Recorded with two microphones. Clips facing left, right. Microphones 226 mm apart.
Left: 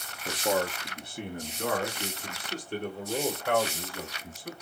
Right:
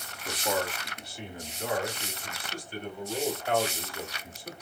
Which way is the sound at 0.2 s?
25° left (ahead or behind).